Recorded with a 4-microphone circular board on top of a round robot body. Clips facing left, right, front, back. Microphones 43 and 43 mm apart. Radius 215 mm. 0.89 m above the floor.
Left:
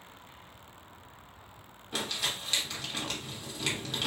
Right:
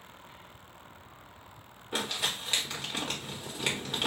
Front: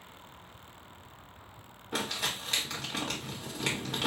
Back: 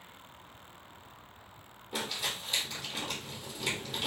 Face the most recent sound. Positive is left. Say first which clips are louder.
# right 1 dB, front 2 dB
turn(degrees=-20)